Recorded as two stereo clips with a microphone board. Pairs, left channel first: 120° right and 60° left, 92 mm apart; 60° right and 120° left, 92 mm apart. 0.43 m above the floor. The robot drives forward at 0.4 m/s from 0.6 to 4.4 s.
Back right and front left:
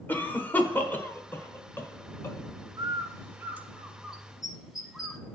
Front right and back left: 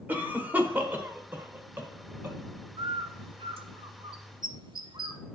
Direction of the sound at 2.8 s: 105° left.